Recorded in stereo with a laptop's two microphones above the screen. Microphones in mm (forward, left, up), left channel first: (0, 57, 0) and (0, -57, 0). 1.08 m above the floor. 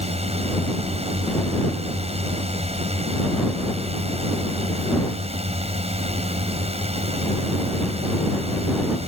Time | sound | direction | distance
0.0 | a drone | 65° right (ahead or behind) | ?